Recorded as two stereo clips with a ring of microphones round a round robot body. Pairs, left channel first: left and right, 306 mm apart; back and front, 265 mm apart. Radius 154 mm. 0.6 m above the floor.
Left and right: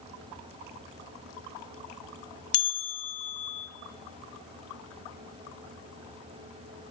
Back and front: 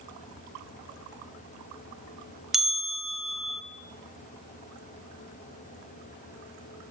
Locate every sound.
2.5 s a bell: 85° left, 0.8 m